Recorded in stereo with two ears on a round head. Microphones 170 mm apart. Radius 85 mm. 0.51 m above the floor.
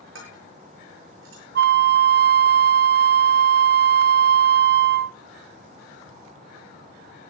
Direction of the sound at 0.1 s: 75° right (ahead or behind).